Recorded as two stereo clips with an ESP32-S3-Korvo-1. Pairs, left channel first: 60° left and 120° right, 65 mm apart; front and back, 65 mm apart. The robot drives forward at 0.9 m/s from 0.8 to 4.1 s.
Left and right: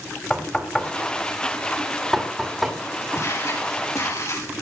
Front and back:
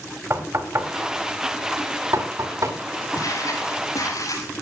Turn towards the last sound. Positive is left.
turn(degrees=25)